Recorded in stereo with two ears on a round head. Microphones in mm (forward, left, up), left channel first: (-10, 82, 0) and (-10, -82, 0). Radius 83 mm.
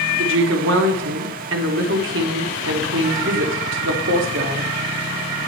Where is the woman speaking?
75° right (ahead or behind), 1.2 m.